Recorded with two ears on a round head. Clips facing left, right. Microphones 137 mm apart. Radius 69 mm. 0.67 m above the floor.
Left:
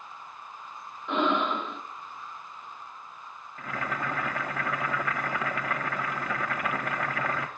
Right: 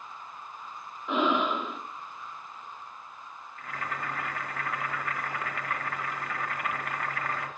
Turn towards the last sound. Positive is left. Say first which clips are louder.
# left 4 dB
turn(degrees=70)  # may be behind; listen again after turning